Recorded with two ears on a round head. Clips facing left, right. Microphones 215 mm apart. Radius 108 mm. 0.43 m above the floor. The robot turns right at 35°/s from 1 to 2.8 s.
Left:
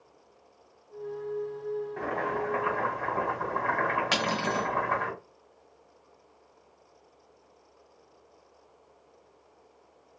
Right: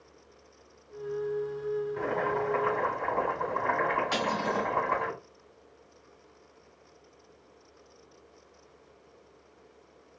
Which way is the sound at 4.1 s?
70° left (ahead or behind).